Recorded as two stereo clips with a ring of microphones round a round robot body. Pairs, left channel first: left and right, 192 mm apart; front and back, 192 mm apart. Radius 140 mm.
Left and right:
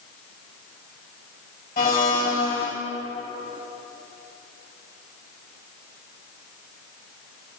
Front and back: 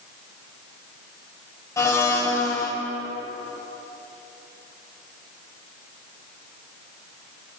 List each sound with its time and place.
1.8 s a blender: 70° left, 1.8 m